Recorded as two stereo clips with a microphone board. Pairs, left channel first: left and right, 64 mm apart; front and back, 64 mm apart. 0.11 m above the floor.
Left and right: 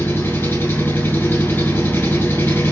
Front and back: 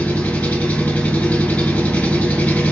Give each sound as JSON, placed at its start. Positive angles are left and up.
{"t": 0.0, "sound": "an engine running", "azimuth_deg": 55, "distance_m": 1.7}